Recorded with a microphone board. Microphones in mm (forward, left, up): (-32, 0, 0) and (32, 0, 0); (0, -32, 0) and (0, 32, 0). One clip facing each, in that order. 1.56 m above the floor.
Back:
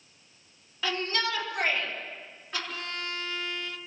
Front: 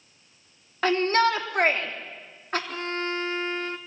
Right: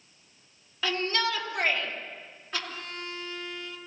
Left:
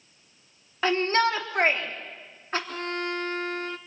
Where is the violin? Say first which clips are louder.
Front 7 dB, left 9 dB; 55° left, 1.0 m.